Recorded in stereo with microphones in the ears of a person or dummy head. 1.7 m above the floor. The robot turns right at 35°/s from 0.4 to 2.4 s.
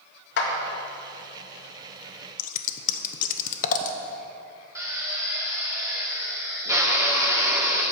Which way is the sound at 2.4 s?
50° left (ahead or behind).